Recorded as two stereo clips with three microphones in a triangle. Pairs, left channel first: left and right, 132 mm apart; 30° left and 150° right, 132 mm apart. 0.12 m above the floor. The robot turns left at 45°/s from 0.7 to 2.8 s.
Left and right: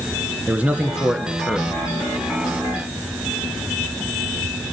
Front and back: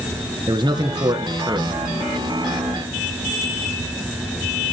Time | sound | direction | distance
0.5 | a man speaking | 160° right | 1.5 m